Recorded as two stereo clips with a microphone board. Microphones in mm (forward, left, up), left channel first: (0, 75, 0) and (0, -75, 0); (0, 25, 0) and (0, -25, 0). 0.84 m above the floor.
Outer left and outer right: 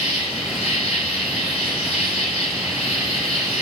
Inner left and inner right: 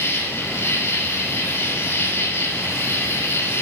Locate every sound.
0.0 s an insect: 45° left (ahead or behind), 4.5 m